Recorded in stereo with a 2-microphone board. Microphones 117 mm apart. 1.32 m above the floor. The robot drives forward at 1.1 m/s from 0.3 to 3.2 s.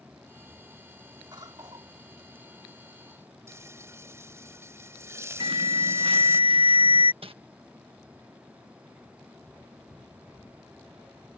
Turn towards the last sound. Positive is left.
turn(degrees=-50)  # may be behind; listen again after turning